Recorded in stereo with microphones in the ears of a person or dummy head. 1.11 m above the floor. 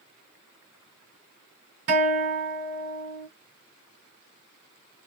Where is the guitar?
45° right (ahead or behind), 1.5 m.